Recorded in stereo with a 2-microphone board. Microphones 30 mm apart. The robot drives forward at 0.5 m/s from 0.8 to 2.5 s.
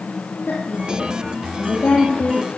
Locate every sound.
0.5 s a woman speaking: 75° left (ahead or behind), 4 m; by 2.5 s 70° left (ahead or behind), 4 m